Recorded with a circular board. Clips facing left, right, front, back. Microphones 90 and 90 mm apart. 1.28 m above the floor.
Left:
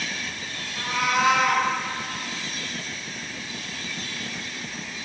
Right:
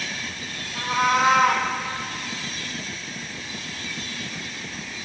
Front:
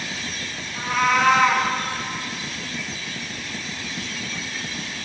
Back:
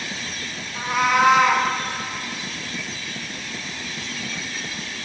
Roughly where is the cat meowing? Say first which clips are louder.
Right 3 dB, back 1 dB; behind right.